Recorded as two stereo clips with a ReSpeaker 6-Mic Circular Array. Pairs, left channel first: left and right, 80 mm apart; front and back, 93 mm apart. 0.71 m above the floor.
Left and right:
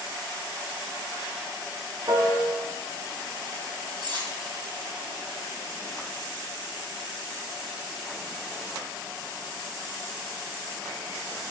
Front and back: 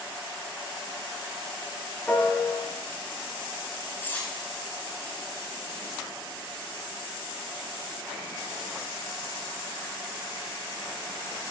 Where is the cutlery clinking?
70° right, 3 m.